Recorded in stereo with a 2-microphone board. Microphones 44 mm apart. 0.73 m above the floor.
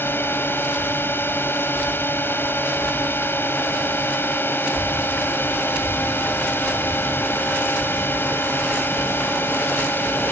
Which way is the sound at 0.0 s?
55° left (ahead or behind).